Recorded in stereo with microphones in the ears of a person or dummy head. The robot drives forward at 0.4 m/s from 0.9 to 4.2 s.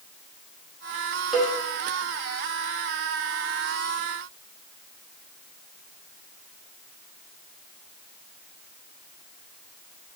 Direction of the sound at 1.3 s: Centre (ahead or behind).